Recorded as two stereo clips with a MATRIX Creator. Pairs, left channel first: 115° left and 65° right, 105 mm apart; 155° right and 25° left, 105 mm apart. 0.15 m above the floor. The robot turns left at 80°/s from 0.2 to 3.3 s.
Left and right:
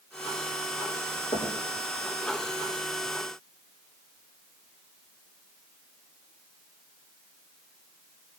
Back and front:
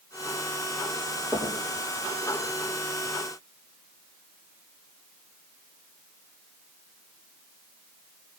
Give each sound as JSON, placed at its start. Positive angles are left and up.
{"t": 1.3, "sound": "knocking", "azimuth_deg": 105, "distance_m": 3.5}